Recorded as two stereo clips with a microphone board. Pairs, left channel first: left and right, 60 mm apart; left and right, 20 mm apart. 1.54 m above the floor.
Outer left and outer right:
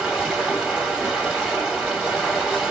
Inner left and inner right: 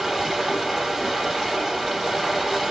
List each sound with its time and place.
0.0 s running water: 10° right (ahead or behind), 1.6 m